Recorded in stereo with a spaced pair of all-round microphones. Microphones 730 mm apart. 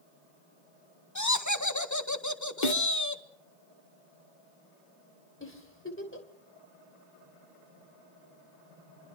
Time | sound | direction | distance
1.1 | laughter | 25° left (ahead or behind) | 1.7 m
2.6 | a snare drum | 90° left | 1.6 m
5.4 | a giggle | 15° left (ahead or behind) | 3 m